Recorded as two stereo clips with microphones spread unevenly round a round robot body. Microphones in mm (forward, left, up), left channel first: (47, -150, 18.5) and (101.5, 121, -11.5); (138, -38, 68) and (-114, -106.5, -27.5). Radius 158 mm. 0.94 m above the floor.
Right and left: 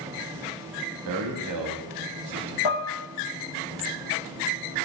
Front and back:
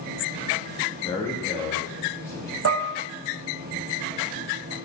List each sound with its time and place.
1.1 s a man speaking: 100° left, 1.2 m
2.6 s dishes clattering: 125° right, 0.6 m